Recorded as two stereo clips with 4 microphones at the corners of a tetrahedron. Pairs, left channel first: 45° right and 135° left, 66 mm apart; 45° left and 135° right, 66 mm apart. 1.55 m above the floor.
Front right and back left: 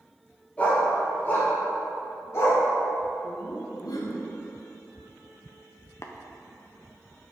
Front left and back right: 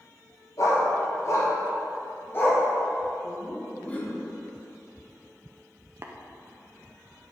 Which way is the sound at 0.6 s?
20° left.